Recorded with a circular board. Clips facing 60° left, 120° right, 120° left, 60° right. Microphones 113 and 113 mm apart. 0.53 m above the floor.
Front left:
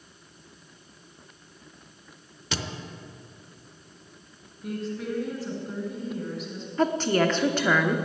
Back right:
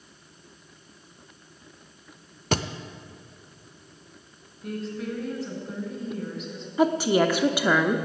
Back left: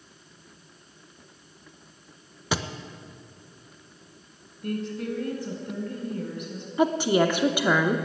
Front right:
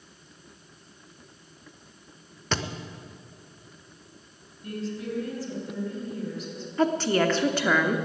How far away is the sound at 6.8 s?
About 0.8 m.